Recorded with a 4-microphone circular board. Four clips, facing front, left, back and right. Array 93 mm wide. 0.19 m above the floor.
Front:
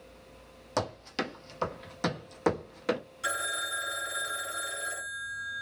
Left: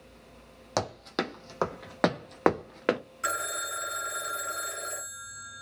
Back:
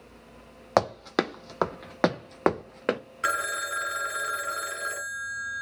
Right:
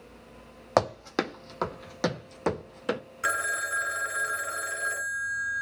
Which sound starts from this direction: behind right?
Running footsteps, at 0.8 s.